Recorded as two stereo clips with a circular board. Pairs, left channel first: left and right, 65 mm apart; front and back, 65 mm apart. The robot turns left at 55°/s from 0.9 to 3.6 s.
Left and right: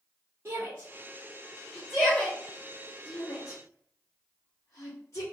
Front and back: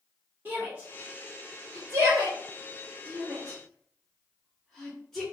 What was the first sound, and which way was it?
A shout, 130° right.